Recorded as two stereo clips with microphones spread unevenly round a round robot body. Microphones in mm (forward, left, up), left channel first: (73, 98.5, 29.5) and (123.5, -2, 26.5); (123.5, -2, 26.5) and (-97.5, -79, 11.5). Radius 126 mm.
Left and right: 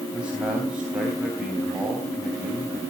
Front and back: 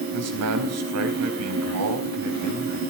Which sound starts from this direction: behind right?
A man speaking, at 0.1 s.